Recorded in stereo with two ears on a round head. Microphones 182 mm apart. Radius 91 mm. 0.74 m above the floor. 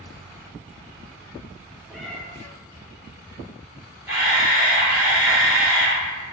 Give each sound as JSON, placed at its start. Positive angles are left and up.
{"t": 1.9, "sound": "a cat meowing", "side_deg": 0, "distance_m": 0.6}
{"t": 4.1, "sound": "a camera shutter", "side_deg": -10, "distance_m": 1.5}